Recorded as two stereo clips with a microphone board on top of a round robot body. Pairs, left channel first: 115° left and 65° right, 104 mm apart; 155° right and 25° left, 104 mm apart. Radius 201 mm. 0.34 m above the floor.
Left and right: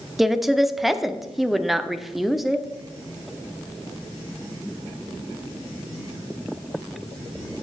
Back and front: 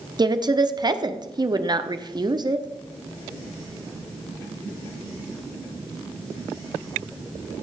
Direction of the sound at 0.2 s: 20° left.